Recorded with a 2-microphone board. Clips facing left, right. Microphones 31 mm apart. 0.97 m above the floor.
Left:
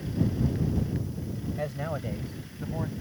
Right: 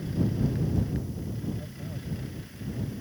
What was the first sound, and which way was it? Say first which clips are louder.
A man speaking: left 8 dB; 85° left.